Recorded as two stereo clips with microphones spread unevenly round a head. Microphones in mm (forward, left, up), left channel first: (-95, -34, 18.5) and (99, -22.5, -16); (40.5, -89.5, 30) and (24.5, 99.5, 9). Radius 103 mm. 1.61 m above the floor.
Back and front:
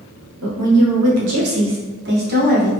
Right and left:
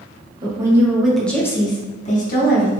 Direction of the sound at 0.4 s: 25° left.